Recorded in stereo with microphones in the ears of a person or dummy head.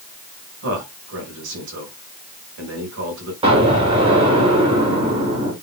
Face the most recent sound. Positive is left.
turn(degrees=-25)  # may be behind; listen again after turning